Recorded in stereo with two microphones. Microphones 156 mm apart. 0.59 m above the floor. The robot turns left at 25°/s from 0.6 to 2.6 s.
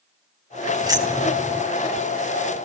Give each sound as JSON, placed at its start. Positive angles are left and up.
{"t": 0.8, "sound": "keys jangling", "side_deg": -25, "distance_m": 3.5}